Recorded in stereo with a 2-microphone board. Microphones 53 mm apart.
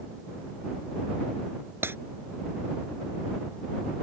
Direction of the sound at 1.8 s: 45° right (ahead or behind).